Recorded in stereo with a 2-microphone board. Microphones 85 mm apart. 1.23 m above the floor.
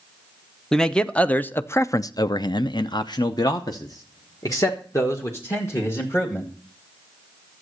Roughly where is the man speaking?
Centre.